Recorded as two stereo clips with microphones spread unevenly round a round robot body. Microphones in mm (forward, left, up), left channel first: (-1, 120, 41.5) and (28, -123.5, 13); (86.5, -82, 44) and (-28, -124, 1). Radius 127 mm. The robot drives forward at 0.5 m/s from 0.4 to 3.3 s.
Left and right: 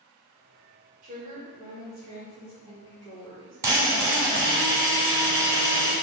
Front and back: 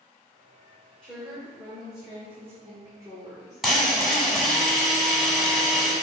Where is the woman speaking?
95° right, 1.2 m; by 3.6 s 150° right, 1.7 m.